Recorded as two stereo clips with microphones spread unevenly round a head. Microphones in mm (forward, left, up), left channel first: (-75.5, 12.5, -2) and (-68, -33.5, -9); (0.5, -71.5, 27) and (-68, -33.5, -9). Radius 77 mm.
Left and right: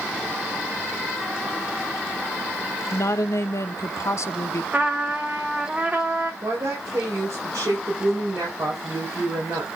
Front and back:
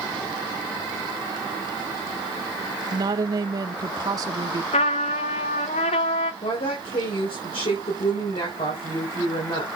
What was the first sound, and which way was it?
A woman speaking, 120° left.